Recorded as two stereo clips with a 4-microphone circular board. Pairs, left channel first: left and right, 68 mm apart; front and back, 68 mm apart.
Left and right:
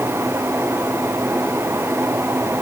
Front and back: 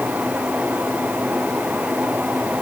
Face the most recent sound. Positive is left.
No sound to turn to.